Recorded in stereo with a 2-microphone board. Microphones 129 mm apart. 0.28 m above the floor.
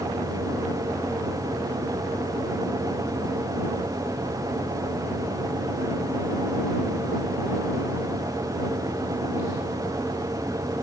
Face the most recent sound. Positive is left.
No sound to turn to.